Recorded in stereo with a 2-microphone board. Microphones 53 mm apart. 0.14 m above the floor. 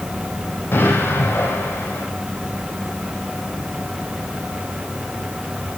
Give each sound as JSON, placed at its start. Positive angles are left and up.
{"t": 0.7, "sound": "an explosion", "side_deg": 45, "distance_m": 6.0}